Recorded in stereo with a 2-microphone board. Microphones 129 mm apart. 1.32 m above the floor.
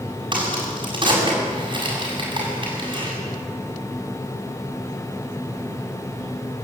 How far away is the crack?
About 7.5 m.